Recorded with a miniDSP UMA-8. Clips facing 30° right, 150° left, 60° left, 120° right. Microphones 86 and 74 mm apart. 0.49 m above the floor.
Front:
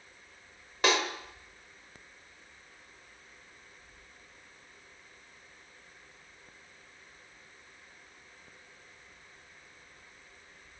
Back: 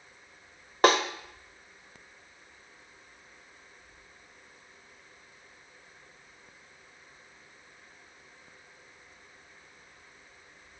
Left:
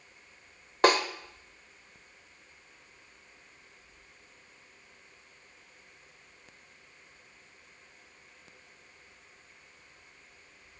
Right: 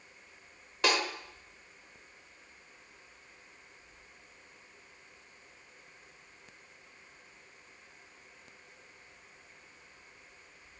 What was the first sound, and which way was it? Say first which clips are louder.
A snare drum: back 6 dB, left 7 dB; 105° left.